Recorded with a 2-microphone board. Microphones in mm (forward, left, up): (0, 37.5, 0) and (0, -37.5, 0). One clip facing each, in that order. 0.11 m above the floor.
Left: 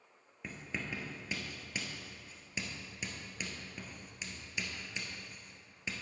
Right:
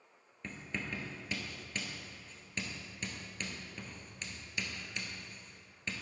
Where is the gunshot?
No gunshot in this recording.